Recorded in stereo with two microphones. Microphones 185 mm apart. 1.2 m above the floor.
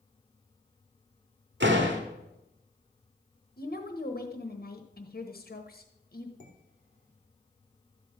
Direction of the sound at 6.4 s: 45° left (ahead or behind).